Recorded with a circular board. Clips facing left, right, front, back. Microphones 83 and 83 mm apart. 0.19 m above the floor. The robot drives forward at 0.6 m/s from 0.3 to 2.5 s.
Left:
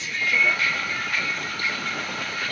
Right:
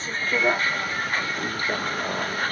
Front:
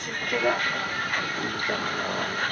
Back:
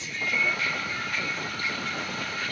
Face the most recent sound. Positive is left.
turn(degrees=-40)